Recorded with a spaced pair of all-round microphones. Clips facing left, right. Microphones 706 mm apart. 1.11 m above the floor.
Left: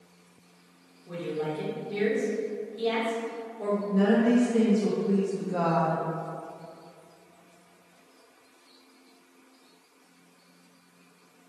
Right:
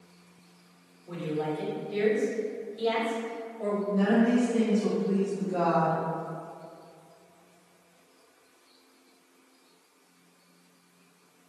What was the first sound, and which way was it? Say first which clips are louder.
A woman speaking: even; 65° left (ahead or behind).